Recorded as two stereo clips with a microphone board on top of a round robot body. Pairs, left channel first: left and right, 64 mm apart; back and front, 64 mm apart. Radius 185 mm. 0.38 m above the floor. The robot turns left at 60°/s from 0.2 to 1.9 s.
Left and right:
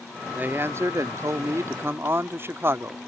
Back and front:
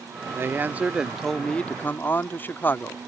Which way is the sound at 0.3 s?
35° right.